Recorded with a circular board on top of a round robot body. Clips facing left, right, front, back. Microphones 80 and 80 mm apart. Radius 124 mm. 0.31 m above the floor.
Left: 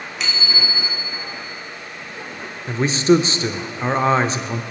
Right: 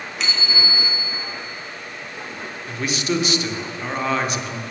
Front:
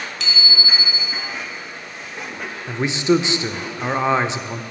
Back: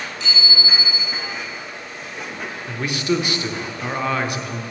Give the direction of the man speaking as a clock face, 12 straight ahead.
10 o'clock.